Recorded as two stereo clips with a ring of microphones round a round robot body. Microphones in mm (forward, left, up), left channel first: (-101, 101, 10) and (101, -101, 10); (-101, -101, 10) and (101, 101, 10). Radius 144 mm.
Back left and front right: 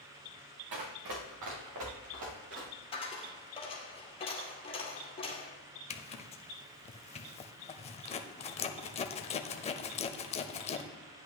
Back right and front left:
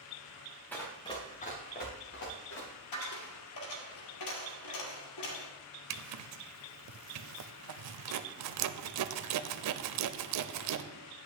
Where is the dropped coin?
155° right, 2 m.